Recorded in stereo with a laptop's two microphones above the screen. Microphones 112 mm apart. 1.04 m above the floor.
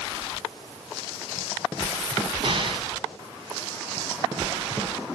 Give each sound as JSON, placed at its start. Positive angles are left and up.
{"t": 2.4, "sound": "an explosion", "side_deg": -55, "distance_m": 1.8}